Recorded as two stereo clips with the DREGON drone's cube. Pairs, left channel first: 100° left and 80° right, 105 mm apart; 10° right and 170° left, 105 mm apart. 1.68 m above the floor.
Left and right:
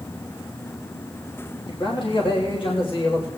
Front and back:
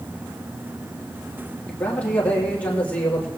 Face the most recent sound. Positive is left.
turn(degrees=65)